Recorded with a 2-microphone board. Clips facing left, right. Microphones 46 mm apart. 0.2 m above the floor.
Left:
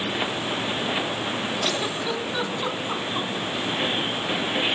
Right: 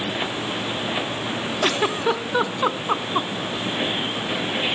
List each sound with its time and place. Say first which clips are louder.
1.6 s a giggle: right 5 dB; 40° right (ahead or behind), 0.6 m